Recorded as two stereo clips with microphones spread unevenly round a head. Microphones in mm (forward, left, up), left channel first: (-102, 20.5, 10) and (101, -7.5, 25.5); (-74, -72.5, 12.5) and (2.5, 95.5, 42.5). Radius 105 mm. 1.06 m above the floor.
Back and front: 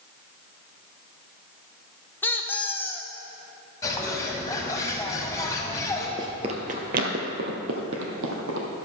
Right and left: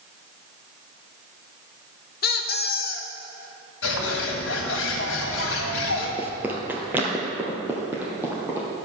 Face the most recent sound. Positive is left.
turn(degrees=-10)